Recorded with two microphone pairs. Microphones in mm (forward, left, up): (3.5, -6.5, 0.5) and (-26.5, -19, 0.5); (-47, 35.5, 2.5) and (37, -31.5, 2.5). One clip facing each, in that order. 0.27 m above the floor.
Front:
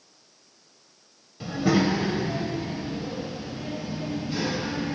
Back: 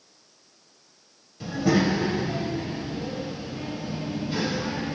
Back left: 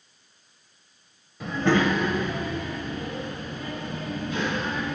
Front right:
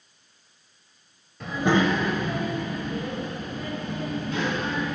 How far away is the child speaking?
About 0.9 m.